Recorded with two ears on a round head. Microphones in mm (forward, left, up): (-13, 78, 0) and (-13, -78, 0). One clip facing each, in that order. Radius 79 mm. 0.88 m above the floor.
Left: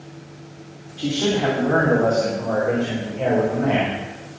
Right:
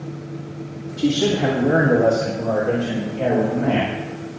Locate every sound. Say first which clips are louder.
1.0 s a man speaking: right 3 dB; 25° right (ahead or behind), 2.5 m; by 4.4 s 10° left (ahead or behind), 4.5 m